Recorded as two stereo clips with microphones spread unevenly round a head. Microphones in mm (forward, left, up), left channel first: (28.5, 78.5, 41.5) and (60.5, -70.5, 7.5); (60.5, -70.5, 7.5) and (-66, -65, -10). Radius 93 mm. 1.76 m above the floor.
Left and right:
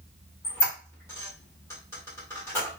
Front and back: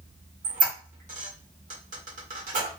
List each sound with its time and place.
0.4 s a squeak: 170° left, 1.2 m